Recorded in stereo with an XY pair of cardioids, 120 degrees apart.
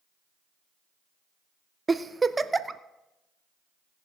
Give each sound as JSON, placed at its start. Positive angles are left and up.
{"t": 1.9, "sound": "a giggle", "azimuth_deg": -20, "distance_m": 0.6}